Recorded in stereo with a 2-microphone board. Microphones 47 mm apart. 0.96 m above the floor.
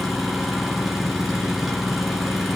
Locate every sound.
0.0 s an engine running: centre (ahead or behind), 7.5 m